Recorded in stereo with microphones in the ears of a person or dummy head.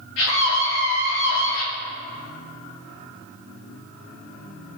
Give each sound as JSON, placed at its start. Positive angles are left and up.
{"t": 0.2, "sound": "a scream", "side_deg": 80, "distance_m": 3.5}